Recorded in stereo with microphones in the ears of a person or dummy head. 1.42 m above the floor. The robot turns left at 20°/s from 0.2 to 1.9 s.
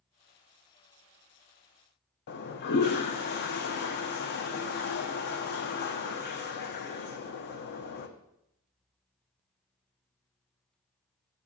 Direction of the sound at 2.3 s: 50° left (ahead or behind).